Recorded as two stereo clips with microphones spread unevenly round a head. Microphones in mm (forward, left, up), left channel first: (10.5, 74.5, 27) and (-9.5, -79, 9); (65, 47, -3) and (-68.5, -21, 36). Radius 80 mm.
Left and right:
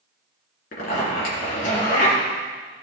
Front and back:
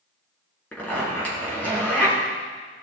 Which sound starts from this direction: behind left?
A zipper, at 0.7 s.